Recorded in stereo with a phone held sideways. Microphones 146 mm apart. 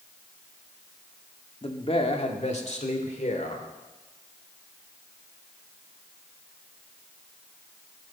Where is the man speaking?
40° left (ahead or behind), 1.5 m; by 3.6 s 55° left (ahead or behind), 3 m.